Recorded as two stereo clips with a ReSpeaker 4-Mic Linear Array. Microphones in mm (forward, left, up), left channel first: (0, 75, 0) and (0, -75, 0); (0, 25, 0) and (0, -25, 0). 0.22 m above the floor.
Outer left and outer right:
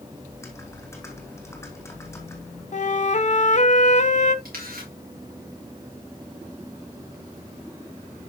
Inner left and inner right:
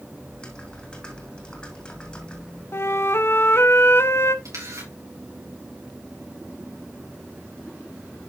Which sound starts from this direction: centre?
Typing on a keyboard, at 0.3 s.